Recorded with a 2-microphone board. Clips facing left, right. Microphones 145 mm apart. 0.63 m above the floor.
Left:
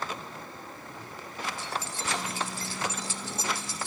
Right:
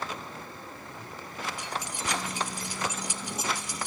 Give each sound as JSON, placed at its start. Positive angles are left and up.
{"t": 1.6, "sound": "keys jangling", "side_deg": -15, "distance_m": 1.3}